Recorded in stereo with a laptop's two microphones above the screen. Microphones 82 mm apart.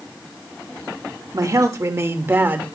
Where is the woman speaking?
45° right (ahead or behind), 3 m; by 2.7 s 20° right (ahead or behind), 3 m.